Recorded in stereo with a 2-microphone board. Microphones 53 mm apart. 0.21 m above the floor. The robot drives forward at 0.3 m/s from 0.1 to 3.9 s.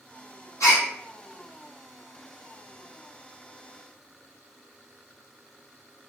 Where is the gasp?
75° left (ahead or behind), 2 m.